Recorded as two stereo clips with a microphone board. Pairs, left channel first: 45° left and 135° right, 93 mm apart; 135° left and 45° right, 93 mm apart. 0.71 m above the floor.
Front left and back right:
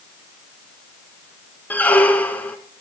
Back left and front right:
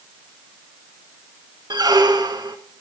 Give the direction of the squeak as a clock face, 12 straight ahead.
1 o'clock.